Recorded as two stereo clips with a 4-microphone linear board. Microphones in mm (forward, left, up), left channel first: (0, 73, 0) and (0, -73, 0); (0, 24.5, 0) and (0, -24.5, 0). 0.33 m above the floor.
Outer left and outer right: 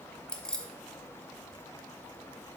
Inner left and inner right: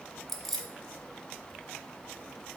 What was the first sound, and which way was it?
Keys jangling, 5° left (ahead or behind).